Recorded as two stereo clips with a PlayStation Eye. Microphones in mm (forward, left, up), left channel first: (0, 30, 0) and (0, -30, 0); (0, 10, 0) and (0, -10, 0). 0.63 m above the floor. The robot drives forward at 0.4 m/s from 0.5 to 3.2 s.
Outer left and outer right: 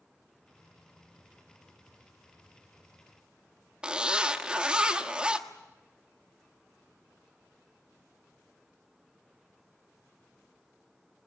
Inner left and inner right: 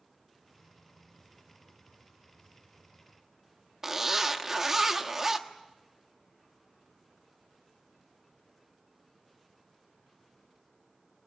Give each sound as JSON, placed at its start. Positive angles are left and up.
{"t": 3.8, "sound": "a zipper", "side_deg": -15, "distance_m": 1.5}